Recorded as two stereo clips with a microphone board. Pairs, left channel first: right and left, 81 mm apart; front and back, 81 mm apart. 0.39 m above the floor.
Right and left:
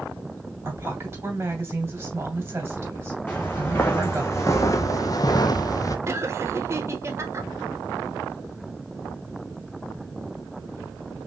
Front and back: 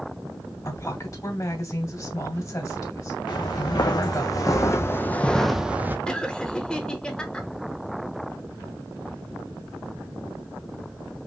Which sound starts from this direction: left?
Laughter, at 6.1 s.